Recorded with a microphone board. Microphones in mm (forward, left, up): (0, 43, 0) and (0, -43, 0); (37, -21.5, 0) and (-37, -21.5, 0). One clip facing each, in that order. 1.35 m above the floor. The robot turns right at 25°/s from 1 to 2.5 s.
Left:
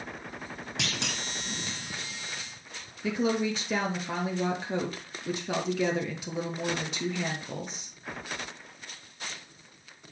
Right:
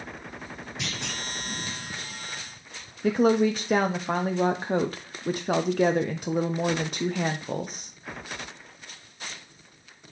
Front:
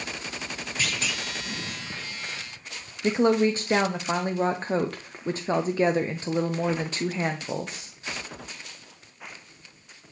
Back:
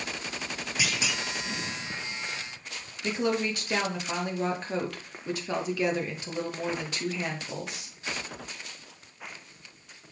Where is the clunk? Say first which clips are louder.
Left 1 dB, even; 100° left, 1.3 m; by 1.2 s 105° left, 1.3 m.